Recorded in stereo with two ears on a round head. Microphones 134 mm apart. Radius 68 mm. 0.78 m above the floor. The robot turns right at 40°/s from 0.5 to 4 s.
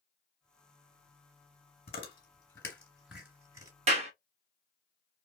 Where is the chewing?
45° left (ahead or behind), 3 m; by 3.7 s 25° right (ahead or behind), 3 m.